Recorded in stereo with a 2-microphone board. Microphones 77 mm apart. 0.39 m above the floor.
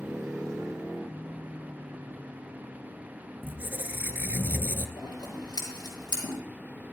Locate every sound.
3.4 s a squeak: 25° right (ahead or behind), 0.6 m
5.0 s scissors: 55° left (ahead or behind), 5 m